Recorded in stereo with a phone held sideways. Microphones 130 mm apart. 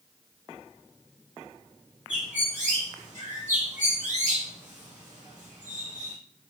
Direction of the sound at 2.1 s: 70° right (ahead or behind).